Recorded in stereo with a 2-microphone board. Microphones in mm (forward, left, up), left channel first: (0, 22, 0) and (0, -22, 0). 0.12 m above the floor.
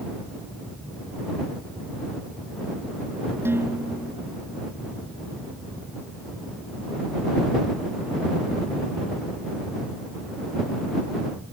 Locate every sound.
3.5 s dishes clattering: 65° right (ahead or behind)